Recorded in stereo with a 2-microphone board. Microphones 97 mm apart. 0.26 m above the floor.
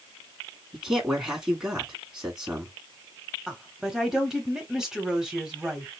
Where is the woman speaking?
5° right (ahead or behind), 1.3 m.